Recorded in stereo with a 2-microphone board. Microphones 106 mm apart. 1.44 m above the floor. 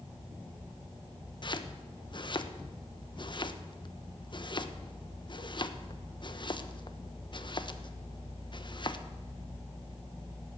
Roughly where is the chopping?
Left.